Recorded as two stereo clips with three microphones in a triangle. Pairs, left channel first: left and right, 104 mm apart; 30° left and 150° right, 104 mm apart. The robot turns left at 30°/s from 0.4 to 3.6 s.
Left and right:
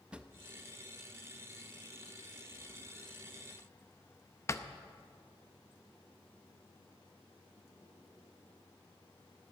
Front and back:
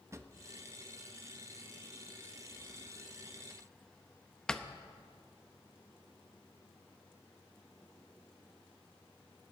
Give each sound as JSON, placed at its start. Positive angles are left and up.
{"t": 0.1, "sound": "a drawer", "azimuth_deg": -160, "distance_m": 0.6}